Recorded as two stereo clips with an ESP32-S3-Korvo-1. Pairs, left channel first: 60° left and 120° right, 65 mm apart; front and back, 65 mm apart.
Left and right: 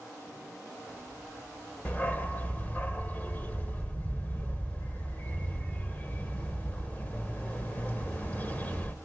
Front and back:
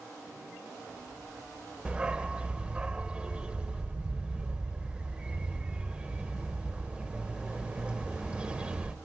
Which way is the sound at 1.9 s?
115° left.